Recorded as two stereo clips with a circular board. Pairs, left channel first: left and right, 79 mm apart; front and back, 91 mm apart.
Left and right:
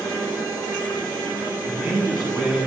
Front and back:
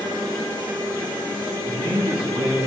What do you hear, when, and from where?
1.6 s a man speaking: straight behind, 10 m